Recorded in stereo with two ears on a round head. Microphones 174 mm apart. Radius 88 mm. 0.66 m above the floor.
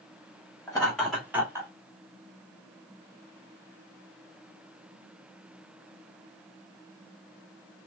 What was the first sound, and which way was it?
Laughter, 15° left (ahead or behind).